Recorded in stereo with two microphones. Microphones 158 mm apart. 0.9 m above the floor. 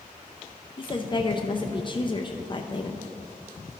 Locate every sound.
0.8 s a woman speaking: 35° left (ahead or behind), 0.6 m